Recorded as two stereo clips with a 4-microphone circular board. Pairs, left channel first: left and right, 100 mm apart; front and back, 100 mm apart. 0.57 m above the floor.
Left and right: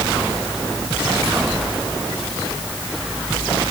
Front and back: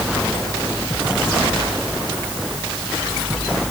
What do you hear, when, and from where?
Only background noise.